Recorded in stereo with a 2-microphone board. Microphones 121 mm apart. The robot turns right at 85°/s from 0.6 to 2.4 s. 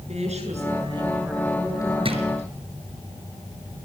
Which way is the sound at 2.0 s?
50° right (ahead or behind).